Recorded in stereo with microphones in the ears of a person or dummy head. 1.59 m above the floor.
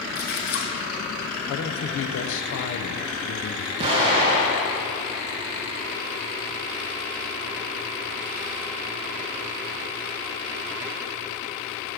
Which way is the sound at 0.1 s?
50° left (ahead or behind).